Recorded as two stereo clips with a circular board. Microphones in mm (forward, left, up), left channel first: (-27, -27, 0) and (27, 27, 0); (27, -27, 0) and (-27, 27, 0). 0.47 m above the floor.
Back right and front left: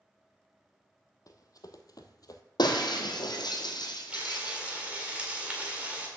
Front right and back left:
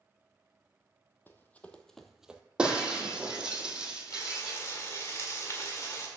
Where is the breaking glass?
145° right, 1.4 m.